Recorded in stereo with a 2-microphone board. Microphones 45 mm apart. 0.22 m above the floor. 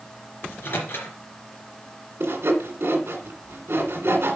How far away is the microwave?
About 3 m.